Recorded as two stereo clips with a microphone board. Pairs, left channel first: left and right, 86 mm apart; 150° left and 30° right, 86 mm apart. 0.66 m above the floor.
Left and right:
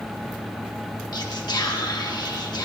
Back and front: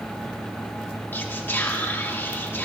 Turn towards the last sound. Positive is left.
turn(degrees=90)